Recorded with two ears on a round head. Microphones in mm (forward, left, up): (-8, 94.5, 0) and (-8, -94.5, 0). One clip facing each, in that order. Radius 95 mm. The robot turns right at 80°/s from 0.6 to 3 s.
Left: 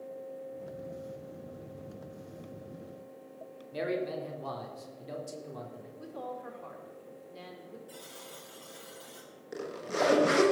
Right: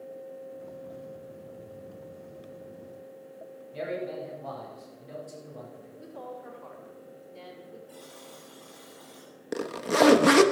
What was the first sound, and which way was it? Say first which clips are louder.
A man speaking: left 1 dB; 60° left (ahead or behind).